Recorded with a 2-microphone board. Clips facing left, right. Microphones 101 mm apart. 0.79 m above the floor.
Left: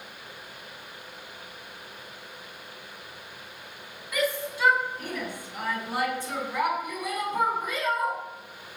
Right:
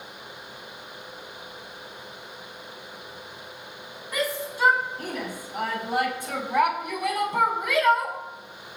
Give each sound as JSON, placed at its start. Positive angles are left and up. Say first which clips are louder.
{"t": 4.1, "sound": "a shout", "louder": "even", "side_deg": -35, "distance_m": 7.0}